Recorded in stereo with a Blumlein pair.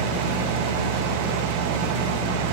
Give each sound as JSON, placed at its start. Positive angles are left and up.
{"t": 0.0, "sound": "a fan", "azimuth_deg": -45, "distance_m": 1.2}